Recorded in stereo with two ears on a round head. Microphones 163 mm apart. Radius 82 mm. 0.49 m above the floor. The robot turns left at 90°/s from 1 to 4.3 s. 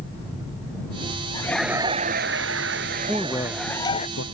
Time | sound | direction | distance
1.3 | laughter | 25° left | ?
3.1 | a man speaking | 10° right (ahead or behind) | ?